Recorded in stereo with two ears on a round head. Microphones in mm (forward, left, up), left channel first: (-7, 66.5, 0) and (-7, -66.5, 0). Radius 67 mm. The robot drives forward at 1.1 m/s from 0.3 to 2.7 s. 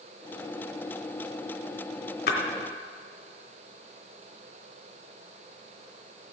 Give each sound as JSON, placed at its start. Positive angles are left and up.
{"t": 2.3, "sound": "a splash", "side_deg": 70, "distance_m": 2.5}